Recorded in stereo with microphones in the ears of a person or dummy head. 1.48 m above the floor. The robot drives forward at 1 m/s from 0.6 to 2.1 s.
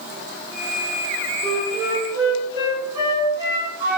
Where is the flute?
50° right (ahead or behind), 0.6 m; by 4.0 s 25° right (ahead or behind), 1.1 m.